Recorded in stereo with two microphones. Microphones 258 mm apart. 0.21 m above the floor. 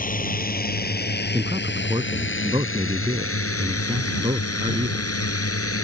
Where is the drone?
35° left (ahead or behind); by 5.8 s 60° left (ahead or behind).